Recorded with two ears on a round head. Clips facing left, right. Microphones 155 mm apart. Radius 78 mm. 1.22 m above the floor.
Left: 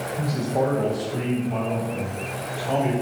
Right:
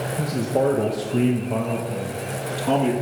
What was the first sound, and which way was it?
A man speaking, 25° right (ahead or behind).